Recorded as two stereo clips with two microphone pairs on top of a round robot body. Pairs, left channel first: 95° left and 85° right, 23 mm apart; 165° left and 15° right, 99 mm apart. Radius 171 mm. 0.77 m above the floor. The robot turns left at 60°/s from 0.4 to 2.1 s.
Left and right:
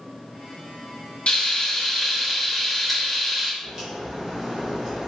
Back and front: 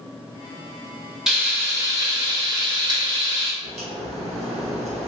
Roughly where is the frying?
Ahead left.